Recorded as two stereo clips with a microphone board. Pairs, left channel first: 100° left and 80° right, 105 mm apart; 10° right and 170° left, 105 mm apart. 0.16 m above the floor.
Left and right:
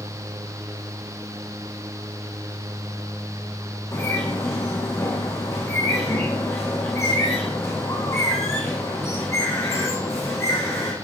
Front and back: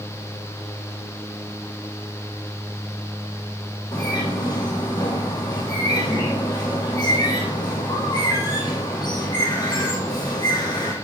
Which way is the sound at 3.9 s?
40° left.